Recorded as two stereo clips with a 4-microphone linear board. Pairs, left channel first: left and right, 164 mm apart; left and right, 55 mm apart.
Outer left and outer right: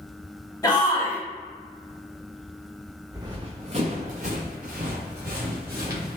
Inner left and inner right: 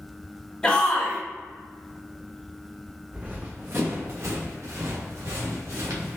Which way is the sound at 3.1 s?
20° right (ahead or behind).